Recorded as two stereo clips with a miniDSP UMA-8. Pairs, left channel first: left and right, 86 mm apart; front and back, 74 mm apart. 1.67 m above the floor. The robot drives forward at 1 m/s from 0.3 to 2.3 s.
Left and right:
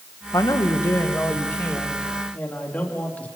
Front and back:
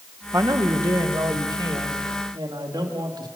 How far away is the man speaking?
About 1.4 m.